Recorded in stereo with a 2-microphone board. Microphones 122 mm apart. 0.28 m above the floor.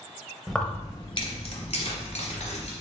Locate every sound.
0.5 s keys jangling: 5° right (ahead or behind), 0.6 m; by 2.7 s 65° left (ahead or behind), 2 m